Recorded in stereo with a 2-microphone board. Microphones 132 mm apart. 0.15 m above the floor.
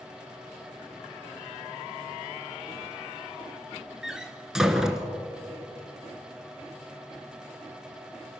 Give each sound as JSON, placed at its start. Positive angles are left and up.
{"t": 4.0, "sound": "a door slam", "side_deg": -5, "distance_m": 1.3}